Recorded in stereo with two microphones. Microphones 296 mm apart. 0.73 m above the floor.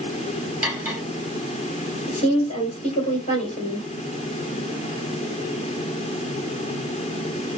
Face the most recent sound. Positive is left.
turn(degrees=20)  # may be behind; listen again after turning